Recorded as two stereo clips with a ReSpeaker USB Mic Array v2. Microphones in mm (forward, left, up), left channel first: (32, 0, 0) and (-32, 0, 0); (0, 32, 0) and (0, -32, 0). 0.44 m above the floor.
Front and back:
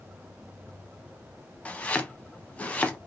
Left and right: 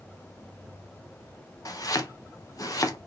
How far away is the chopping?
About 0.7 m.